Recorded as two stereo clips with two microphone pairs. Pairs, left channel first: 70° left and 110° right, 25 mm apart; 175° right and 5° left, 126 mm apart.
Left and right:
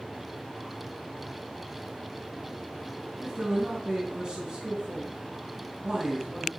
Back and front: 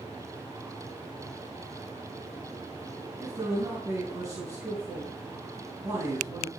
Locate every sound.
3.2 s a man speaking: 55° right, 4 m